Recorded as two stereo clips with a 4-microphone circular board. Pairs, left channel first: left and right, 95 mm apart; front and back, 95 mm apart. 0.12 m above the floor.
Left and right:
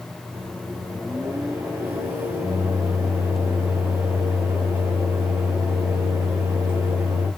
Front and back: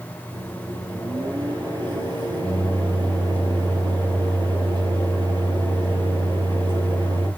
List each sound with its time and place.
0.3 s a microwave: 155° right, 2 m